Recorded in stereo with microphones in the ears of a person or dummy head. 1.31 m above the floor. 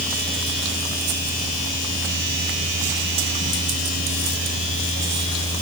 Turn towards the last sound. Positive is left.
No sound to turn to.